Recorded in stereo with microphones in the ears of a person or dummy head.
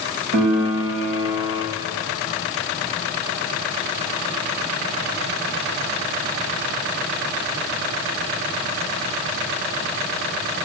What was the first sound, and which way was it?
A piano, 80° right.